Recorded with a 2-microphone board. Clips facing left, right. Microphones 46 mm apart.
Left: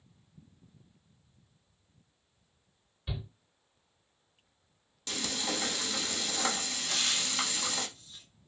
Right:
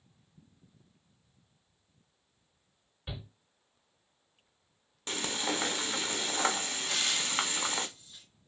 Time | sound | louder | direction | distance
3.1 | a shout | left 3 dB | 30° right (ahead or behind) | 2.5 m
5.1 | frying | right 2 dB | 35° right (ahead or behind) | 0.6 m
6.9 | frying | even | 15° right (ahead or behind) | 1.8 m